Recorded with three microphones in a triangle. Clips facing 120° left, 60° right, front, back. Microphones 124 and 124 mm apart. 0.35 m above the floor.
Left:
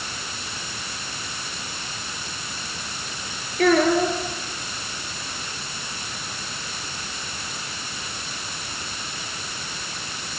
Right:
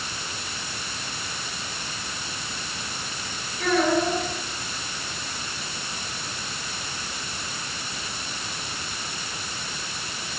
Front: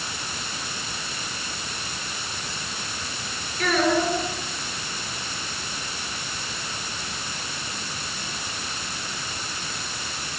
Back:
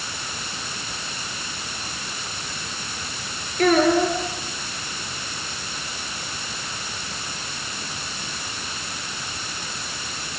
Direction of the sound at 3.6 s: 140° left.